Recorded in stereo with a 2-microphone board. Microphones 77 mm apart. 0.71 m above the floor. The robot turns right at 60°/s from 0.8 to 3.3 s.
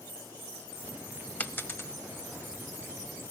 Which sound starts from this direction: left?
A dropped coin, at 1.4 s.